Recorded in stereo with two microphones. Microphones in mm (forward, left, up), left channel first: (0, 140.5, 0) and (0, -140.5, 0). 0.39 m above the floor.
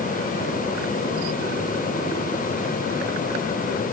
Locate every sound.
Only background noise.